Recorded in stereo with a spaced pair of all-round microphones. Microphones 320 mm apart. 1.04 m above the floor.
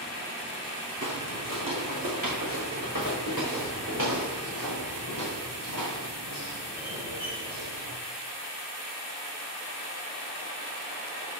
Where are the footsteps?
60° right (ahead or behind), 2.5 m; by 8.0 s 70° right (ahead or behind), 8.5 m.